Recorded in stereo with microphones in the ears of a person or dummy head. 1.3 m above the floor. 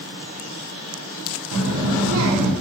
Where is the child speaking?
80° right, 0.5 m.